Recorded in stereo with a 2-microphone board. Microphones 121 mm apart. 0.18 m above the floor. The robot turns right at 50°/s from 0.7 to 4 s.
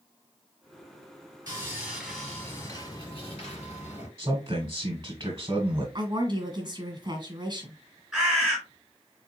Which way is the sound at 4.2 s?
30° right (ahead or behind).